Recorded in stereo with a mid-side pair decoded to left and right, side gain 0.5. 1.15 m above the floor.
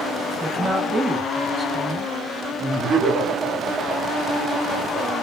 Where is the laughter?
30° right, 2 m.